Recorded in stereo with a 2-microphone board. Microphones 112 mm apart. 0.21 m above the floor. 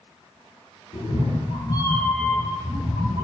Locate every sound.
0.9 s a cat meowing: 80° left, 1.1 m; by 3.2 s 25° right (ahead or behind), 1.7 m